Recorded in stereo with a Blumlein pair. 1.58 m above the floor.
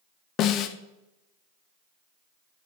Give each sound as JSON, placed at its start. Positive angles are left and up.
{"t": 0.4, "sound": "a snare drum", "azimuth_deg": 35, "distance_m": 1.2}